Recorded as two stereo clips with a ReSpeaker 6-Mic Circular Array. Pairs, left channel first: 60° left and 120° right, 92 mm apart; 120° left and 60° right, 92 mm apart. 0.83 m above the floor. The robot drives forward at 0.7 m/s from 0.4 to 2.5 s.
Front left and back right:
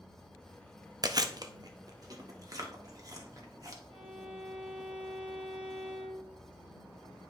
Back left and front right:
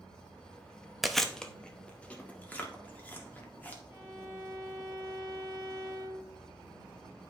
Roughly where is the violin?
Behind right.